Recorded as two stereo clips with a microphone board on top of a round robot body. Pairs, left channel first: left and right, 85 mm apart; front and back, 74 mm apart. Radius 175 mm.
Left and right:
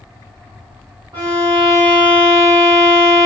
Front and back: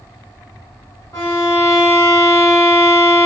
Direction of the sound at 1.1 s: 50° right.